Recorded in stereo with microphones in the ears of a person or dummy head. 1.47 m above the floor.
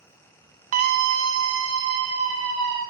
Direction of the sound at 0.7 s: 40° right (ahead or behind).